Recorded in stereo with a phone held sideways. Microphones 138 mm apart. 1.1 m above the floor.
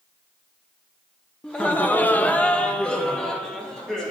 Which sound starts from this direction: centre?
Laughter, at 1.4 s.